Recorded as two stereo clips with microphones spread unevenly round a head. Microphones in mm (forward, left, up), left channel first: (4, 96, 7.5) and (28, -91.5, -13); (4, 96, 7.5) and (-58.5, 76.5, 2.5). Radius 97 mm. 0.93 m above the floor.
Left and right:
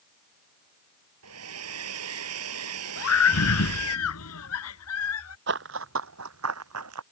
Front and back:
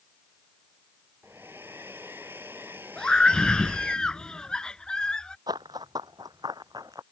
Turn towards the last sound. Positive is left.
turn(degrees=-90)